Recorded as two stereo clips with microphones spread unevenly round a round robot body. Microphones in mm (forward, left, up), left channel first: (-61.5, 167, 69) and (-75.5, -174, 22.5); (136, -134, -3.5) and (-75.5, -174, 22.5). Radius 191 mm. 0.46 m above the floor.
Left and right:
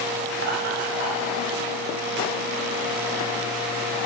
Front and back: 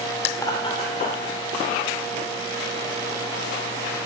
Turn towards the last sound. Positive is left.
turn(degrees=-25)